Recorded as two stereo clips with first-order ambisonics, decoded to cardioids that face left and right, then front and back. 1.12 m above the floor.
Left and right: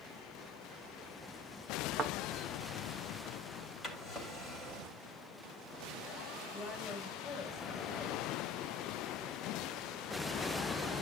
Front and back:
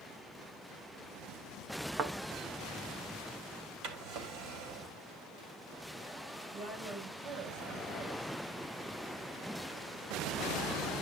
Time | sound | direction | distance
2.0 | a thud | 140° right | 0.7 m
3.8 | a drawer | 175° left | 3 m
6.5 | a woman speaking | 160° left | 5.5 m